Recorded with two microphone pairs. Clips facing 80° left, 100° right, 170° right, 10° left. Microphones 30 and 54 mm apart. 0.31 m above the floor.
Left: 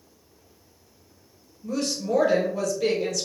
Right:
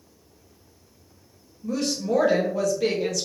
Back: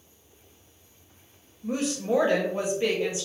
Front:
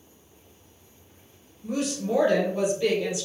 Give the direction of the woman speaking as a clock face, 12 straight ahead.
6 o'clock.